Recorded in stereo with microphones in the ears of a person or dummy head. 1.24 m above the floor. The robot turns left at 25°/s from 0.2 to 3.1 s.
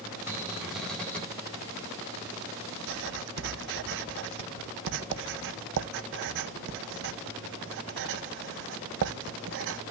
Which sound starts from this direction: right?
Writing, at 2.9 s.